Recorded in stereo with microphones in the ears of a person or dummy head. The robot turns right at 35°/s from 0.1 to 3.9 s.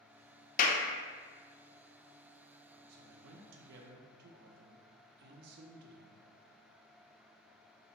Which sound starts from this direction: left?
A clap, at 0.6 s.